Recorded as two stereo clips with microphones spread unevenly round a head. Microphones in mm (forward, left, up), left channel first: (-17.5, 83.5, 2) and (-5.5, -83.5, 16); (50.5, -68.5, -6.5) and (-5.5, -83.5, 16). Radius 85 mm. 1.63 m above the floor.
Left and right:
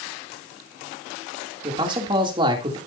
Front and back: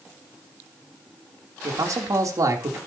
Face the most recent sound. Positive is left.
turn(degrees=-150)